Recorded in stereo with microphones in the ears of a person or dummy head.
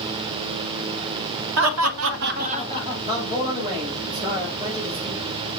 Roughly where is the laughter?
Right.